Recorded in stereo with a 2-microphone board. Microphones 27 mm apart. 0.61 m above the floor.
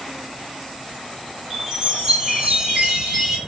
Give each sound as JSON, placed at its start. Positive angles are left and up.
{"t": 1.5, "sound": "a chime", "side_deg": -30, "distance_m": 1.5}